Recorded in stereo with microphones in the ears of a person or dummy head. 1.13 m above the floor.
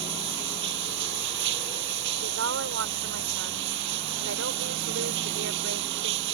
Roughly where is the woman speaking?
Right.